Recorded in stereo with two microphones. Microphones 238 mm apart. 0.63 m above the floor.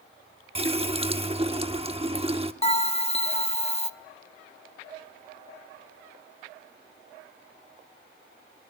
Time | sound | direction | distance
0.6 | a running tap | 25° right (ahead or behind) | 0.8 m
2.6 | a bell | 25° left (ahead or behind) | 0.7 m